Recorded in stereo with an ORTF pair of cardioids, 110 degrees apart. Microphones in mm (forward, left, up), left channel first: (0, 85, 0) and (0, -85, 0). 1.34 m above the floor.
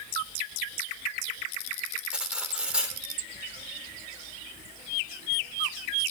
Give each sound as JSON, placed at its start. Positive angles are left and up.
{"t": 2.1, "sound": "cutlery clinking", "azimuth_deg": -5, "distance_m": 3.0}